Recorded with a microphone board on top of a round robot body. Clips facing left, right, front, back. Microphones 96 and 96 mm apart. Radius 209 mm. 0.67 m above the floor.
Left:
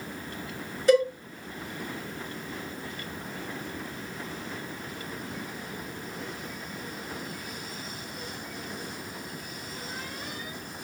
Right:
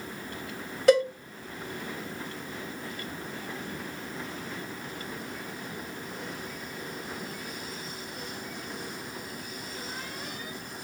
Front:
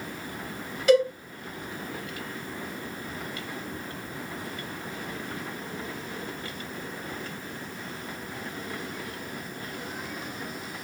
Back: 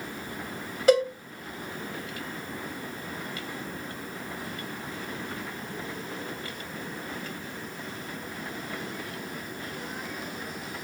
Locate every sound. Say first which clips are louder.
0.9 s a cowbell: even, front 1 dB; 125° right, 1.5 m